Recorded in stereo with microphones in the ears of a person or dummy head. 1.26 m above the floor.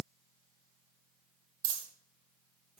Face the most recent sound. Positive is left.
turn(degrees=-25)  # may be behind; listen again after turning